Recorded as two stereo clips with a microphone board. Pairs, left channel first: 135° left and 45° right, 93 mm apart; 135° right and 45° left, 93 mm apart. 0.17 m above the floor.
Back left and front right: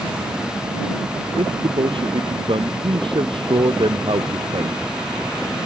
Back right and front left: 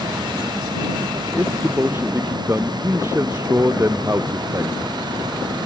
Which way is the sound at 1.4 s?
20° right.